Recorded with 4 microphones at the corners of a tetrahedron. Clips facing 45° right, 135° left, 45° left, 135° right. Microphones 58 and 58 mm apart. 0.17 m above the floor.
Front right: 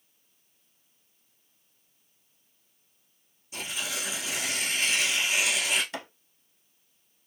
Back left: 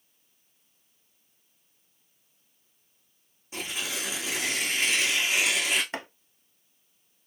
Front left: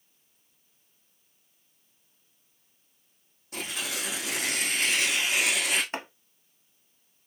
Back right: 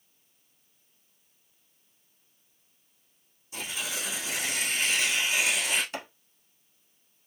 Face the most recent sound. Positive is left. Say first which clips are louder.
# back left 2 dB, front left 2 dB
turn(degrees=90)